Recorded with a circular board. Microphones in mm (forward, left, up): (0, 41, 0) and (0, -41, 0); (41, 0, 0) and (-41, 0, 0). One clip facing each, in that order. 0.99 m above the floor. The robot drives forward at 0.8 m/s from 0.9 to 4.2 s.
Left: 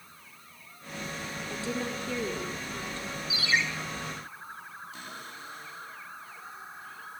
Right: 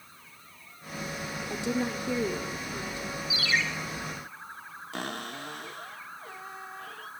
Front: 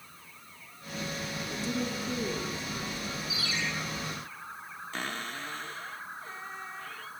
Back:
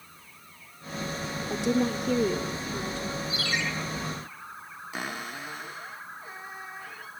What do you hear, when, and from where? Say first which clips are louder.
1.5 s a woman speaking: right 4 dB, back 8 dB; 165° right, 2.5 m; by 3.2 s 170° right, 4 m
3.3 s a ringtone: left 1 dB, back 5 dB; 150° left, 9.5 m
4.9 s a cupboard door: right 7 dB, back 2 dB; 100° right, 2.5 m